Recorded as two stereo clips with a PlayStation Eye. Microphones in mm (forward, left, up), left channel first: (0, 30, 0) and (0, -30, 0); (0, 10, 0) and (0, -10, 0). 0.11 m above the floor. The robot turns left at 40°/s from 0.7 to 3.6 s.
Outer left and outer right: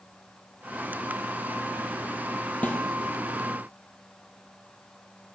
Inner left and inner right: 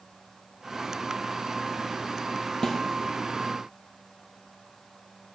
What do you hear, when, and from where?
2.6 s a snare drum: 25° left (ahead or behind), 1.2 m; by 2.8 s 30° left (ahead or behind), 1.2 m